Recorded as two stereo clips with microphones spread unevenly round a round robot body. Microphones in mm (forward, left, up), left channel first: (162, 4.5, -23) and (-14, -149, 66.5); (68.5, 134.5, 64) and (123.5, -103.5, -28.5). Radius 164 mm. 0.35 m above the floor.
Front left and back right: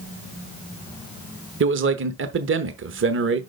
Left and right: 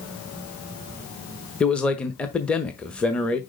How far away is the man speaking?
About 0.9 m.